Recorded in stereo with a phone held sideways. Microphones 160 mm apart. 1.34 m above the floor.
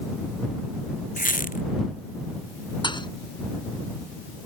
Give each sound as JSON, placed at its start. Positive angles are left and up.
{"t": 1.2, "sound": "a squeak", "side_deg": 60}
{"t": 2.8, "sound": "a thud", "side_deg": 30}